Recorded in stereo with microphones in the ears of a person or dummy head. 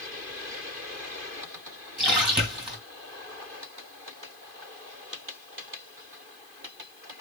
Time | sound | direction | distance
2.0 | a splash | 10° right (ahead or behind) | 2.5 m